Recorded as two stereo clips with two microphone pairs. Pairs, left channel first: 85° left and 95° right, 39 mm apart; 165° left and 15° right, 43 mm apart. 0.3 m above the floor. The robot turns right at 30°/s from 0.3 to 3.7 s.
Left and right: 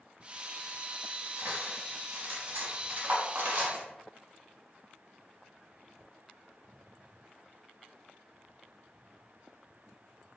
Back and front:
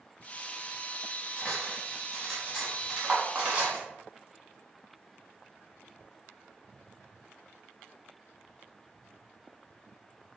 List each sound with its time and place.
1.4 s cutlery clinking: 135° right, 0.9 m; by 3.8 s 65° right, 0.9 m